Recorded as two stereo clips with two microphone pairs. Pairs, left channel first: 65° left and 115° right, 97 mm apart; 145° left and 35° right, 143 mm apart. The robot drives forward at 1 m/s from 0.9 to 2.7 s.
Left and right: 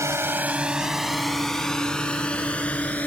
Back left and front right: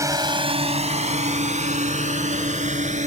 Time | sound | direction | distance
0.0 | a drone | 85° right | ?